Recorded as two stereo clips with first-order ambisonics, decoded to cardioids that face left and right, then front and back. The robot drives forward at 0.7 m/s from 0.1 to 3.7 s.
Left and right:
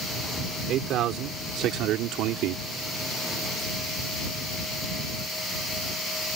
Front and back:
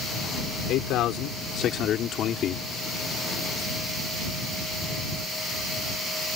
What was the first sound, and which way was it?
A man speaking, 45° right.